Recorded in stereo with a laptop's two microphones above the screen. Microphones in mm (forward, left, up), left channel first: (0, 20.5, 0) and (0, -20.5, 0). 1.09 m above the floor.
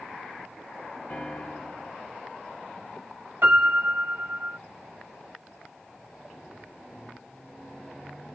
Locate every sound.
1.1 s a piano: 35° left (ahead or behind), 1.2 m
3.4 s a piano: 70° right (ahead or behind), 2.5 m